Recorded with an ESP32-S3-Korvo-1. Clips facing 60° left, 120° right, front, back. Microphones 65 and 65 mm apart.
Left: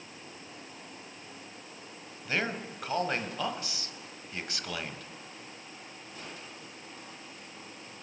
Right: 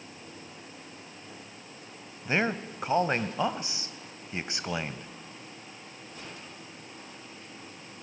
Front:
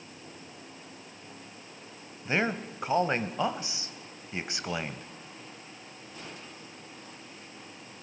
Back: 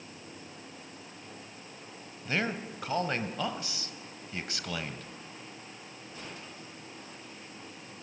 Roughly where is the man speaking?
Ahead right.